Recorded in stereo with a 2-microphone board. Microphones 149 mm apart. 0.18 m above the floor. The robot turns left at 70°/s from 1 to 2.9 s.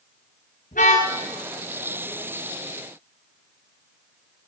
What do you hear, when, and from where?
0.7 s a car horn: 70° left (ahead or behind), 9.5 m; by 1.1 s 60° left (ahead or behind), 9.5 m